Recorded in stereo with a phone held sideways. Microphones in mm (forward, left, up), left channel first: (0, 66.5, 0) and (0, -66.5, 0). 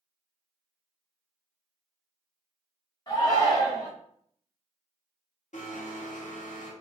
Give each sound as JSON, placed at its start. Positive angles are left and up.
{"t": 3.1, "sound": "a shout", "side_deg": 30, "distance_m": 1.5}
{"t": 5.5, "sound": "a blender", "side_deg": 70, "distance_m": 0.6}